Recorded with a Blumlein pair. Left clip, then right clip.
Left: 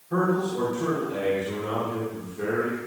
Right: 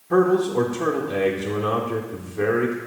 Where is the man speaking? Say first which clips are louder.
Right 7 dB; 30° right, 1.2 m.